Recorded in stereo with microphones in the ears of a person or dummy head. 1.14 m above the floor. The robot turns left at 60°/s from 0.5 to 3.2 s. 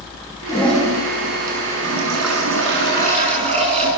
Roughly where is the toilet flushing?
Ahead.